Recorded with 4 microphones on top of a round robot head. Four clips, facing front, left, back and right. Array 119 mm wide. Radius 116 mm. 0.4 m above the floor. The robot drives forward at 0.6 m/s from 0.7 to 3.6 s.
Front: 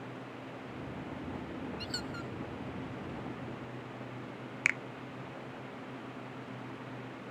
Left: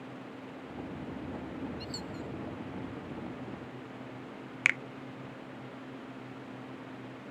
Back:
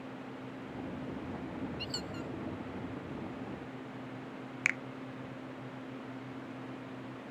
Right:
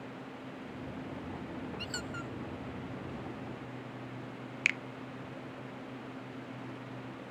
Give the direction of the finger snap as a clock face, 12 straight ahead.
9 o'clock.